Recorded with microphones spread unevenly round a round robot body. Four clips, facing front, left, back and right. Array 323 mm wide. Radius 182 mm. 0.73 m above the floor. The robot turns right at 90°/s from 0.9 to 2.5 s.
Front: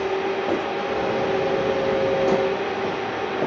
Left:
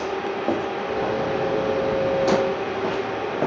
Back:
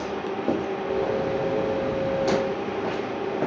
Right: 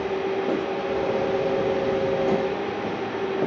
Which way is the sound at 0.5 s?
Straight behind.